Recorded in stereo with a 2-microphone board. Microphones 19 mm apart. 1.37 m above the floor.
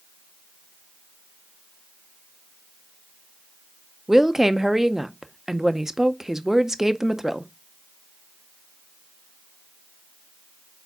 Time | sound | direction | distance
4.1 | a woman speaking | 20° right (ahead or behind) | 0.5 m